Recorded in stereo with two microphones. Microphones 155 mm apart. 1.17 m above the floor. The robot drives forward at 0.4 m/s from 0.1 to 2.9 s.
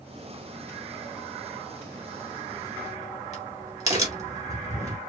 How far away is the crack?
About 2.5 m.